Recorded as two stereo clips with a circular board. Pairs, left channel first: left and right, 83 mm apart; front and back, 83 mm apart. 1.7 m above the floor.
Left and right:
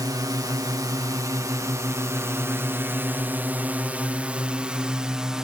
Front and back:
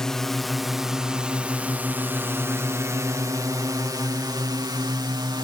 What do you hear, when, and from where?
0.0 s a drone: 80° right; by 5.4 s 170° right